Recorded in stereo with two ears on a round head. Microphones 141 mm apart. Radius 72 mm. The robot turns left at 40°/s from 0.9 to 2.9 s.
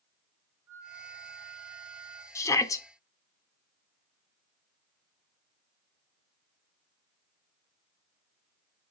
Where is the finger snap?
I don't hear a finger snap.